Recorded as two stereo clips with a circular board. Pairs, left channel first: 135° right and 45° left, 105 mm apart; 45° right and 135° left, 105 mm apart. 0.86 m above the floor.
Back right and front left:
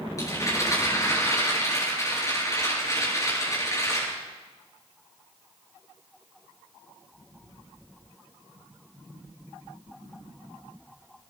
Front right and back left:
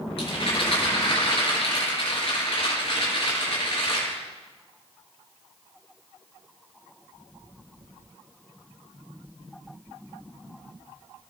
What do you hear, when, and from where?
0.2 s a rattle: 75° right, 8 m